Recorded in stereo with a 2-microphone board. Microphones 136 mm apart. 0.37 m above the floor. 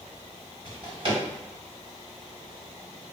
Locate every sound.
0.7 s a drawer: 40° right (ahead or behind), 0.9 m